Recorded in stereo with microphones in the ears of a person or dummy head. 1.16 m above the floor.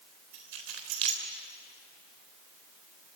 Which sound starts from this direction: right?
Keys jangling, at 0.3 s.